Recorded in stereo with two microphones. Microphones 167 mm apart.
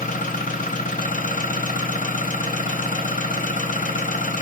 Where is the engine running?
55° left (ahead or behind), 0.8 m.